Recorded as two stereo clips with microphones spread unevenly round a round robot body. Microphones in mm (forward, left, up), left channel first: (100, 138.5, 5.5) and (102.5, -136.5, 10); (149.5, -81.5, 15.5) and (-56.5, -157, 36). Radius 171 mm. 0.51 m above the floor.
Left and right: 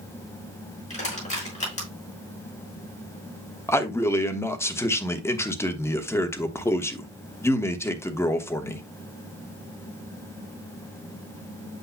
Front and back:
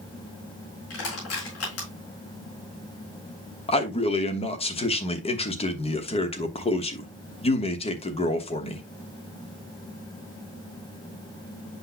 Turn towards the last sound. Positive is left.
turn(degrees=20)